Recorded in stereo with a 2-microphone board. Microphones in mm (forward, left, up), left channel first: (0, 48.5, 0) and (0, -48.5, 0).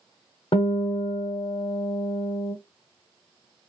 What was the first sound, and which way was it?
A guitar, 60° left (ahead or behind).